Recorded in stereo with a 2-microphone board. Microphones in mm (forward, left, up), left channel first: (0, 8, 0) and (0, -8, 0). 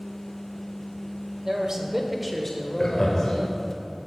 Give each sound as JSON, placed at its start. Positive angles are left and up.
{"t": 1.4, "sound": "a man speaking", "side_deg": -50, "distance_m": 1.3}
{"t": 2.8, "sound": "laughter", "side_deg": 35, "distance_m": 1.3}